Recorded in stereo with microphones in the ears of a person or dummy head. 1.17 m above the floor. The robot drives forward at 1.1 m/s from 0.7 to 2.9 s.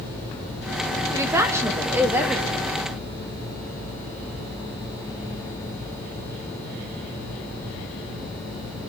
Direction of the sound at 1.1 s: 15° right (ahead or behind).